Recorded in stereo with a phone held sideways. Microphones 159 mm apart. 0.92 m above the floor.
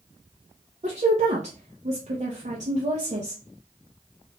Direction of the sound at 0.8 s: 50° right (ahead or behind).